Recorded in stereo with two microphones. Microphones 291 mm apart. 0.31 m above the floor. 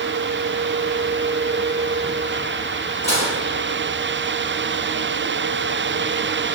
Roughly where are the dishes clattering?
Right.